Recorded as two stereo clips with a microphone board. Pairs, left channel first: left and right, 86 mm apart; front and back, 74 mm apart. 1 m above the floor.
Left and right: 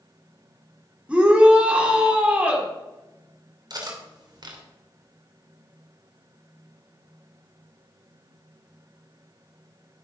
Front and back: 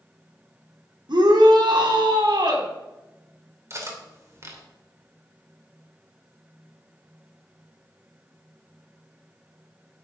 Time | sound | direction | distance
1.1 | a shout | 165° right | 2.5 m
3.7 | cutlery clinking | 130° right | 2.5 m